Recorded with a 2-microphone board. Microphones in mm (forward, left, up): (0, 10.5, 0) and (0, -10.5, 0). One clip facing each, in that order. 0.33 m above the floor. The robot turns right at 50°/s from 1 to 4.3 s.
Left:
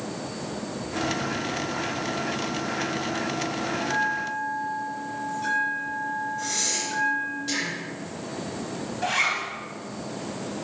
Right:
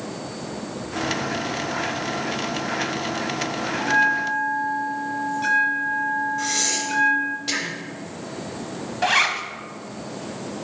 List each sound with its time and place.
3.8 s a bell: 60° right (ahead or behind), 0.7 m; by 7.4 s 40° right (ahead or behind), 0.7 m
6.4 s breathing: 40° right (ahead or behind), 0.9 m
9.0 s a zipper: 40° right (ahead or behind), 0.6 m